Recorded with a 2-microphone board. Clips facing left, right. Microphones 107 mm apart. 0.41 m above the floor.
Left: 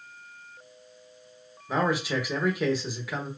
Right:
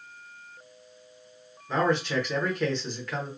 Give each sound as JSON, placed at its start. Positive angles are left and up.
{"t": 1.7, "sound": "a man speaking", "side_deg": 5, "distance_m": 0.8}